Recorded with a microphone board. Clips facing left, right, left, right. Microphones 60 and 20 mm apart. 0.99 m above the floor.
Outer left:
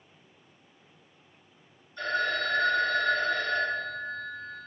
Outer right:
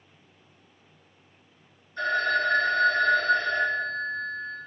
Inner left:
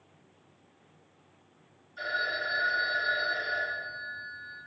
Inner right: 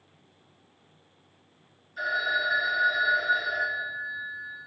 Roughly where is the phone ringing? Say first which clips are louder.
Outer right 4 dB, inner right 4 dB; right.